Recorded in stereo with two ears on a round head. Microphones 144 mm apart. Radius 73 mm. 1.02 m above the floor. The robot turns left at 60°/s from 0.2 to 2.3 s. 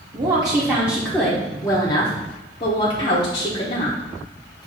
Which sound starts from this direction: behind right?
A woman speaking, at 0.1 s.